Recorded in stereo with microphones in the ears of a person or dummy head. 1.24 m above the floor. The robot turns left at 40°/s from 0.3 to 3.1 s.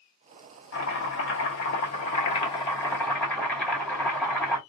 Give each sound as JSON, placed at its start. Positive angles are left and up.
{"t": 0.7, "sound": "chopping", "azimuth_deg": 100, "distance_m": 2.0}